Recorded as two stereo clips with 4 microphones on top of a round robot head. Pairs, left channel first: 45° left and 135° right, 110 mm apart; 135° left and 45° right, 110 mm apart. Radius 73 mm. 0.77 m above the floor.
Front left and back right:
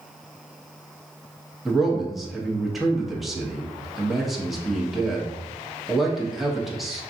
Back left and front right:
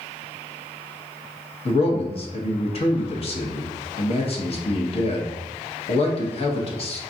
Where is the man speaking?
135° left, 1.1 m.